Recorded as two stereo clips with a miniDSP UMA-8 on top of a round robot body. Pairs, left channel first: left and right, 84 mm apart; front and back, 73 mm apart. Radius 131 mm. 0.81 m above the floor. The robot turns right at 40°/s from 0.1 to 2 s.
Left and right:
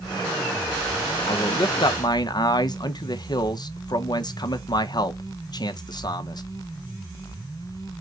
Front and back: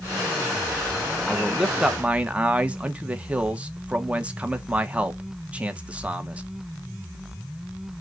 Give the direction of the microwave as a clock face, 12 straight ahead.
I don't hear a microwave.